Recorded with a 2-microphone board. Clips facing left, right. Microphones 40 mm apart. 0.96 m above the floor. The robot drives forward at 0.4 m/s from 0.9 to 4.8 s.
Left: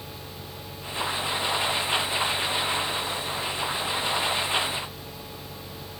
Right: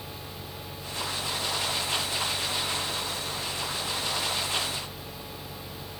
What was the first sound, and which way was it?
Only background noise.